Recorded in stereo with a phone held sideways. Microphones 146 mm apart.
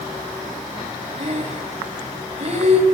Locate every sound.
1.2 s breathing: 45° right (ahead or behind), 7 m